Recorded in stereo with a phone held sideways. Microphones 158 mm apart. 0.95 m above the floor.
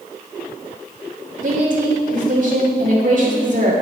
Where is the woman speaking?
55° right (ahead or behind), 2.5 m.